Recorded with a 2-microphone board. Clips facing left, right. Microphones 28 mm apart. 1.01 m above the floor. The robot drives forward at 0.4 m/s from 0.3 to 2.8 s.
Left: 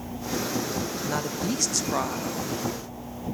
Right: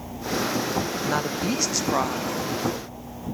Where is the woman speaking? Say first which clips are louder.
Right 2 dB; 25° right (ahead or behind), 0.9 m; by 2.4 s 15° right (ahead or behind), 1.3 m.